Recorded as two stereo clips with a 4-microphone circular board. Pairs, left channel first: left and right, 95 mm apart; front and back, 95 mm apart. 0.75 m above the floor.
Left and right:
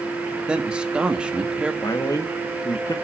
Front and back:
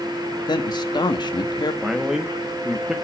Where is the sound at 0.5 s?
10° right, 1.3 m.